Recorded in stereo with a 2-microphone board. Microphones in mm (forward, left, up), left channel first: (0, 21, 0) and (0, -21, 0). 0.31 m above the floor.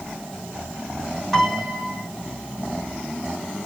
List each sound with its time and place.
1.3 s a piano: 5° right (ahead or behind), 3.5 m